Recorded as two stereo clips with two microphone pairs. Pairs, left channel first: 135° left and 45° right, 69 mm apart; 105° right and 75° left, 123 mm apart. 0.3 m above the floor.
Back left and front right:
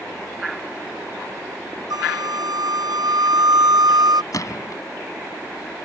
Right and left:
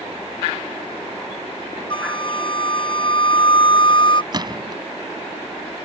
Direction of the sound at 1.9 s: 55° right.